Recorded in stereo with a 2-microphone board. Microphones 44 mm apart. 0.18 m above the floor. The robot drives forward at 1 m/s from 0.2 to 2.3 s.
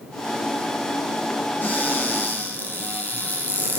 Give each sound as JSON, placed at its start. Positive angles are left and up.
{"t": 1.6, "sound": "a cupboard door", "side_deg": 40, "distance_m": 5.0}